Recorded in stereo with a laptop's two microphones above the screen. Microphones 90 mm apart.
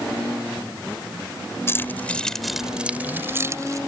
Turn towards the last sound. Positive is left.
turn(degrees=-35)  # may be behind; listen again after turning